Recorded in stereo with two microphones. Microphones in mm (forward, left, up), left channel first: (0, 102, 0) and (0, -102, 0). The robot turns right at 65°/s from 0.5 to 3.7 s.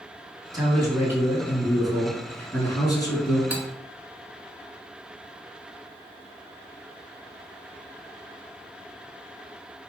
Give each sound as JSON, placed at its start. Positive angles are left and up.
{"t": 0.5, "sound": "a man speaking", "side_deg": -20, "distance_m": 1.2}
{"t": 3.5, "sound": "cutlery clinking", "side_deg": -10, "distance_m": 0.8}